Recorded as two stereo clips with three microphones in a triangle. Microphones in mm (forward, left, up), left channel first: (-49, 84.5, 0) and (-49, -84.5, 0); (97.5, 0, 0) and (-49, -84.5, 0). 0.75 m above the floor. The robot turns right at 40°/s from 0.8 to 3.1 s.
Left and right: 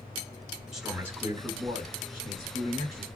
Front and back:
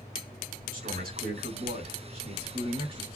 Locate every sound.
0.7 s a man speaking: 175° right, 3 m; by 3.1 s 85° right, 3 m